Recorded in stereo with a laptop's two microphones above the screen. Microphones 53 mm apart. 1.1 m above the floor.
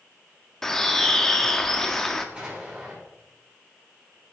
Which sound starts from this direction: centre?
A bird, at 0.6 s.